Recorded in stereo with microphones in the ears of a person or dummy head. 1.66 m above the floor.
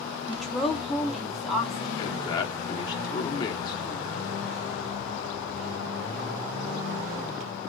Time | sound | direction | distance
0.3 | a woman speaking | centre (ahead or behind) | 0.8 m
2.0 | a man speaking | 25° left (ahead or behind) | 0.8 m